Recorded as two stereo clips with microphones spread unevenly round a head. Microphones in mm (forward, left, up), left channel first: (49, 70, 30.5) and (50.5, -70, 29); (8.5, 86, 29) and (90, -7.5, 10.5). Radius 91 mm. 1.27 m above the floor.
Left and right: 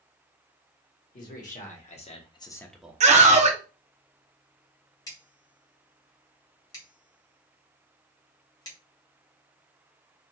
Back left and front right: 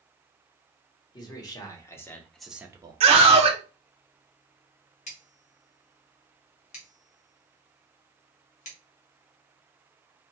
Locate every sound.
1.1 s a man speaking: 70° left, 1.3 m; by 3.0 s 25° right, 0.6 m
3.0 s a scream: 65° right, 0.9 m
5.1 s scissors: 155° left, 0.8 m